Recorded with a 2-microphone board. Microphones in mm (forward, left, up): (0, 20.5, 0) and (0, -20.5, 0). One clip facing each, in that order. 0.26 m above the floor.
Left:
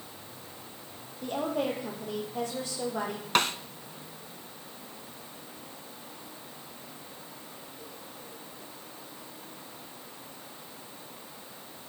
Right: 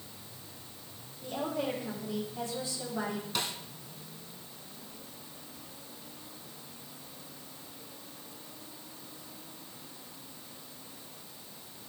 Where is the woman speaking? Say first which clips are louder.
Left 4 dB; 70° left (ahead or behind), 8 m.